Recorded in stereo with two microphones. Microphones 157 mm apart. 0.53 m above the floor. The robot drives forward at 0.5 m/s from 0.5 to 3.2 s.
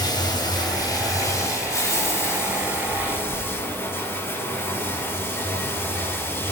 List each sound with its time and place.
0.0 s running water: 25° left (ahead or behind), 1.8 m; by 6.5 s 15° left (ahead or behind), 3 m